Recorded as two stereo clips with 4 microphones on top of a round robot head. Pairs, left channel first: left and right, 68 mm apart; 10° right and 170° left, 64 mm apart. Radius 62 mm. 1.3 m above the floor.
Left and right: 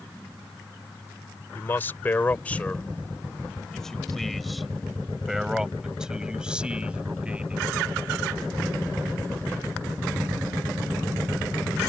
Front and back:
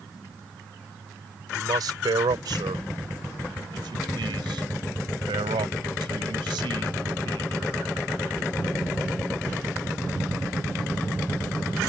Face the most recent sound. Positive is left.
turn(degrees=-165)